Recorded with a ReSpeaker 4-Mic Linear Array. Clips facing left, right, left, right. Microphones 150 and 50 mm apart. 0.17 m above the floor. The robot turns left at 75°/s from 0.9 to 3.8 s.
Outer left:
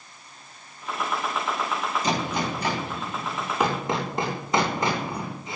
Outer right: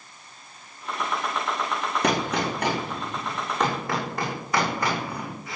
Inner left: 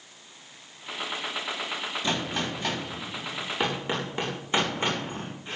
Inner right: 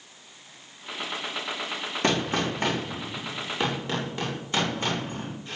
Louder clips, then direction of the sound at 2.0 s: Outer right 4 dB, inner right 6 dB; 70° right.